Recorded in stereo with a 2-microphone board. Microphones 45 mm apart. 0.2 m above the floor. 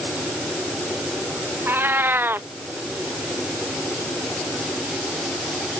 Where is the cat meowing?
55° right (ahead or behind).